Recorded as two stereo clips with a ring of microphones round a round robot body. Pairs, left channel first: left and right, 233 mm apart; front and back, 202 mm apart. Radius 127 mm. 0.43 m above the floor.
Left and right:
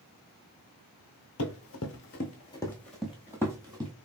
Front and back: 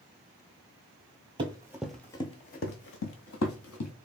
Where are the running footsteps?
115° left, 0.7 m; by 3.9 s 15° right, 1.1 m.